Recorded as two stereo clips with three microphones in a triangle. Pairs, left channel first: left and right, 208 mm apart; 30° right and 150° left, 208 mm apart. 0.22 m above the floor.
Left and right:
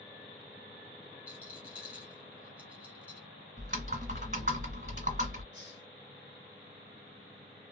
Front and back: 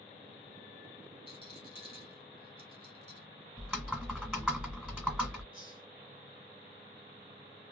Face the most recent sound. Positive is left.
turn(degrees=95)